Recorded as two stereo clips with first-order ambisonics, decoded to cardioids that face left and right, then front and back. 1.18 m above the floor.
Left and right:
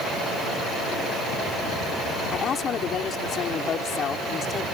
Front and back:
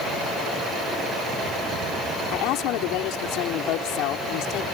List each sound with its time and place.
2.3 s a woman speaking: 30° left